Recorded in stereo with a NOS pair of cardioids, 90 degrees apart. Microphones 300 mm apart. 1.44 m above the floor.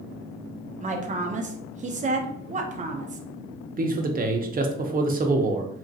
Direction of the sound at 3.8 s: 30° right.